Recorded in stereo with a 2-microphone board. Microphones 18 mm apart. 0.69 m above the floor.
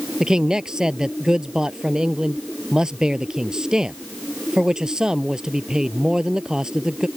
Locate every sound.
0.2 s a man speaking: 40° right (ahead or behind)